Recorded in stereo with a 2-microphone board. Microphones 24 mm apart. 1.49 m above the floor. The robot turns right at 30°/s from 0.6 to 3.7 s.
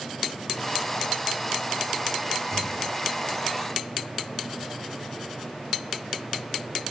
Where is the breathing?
70° left (ahead or behind), 7 m; by 2.8 s 60° left (ahead or behind), 7 m.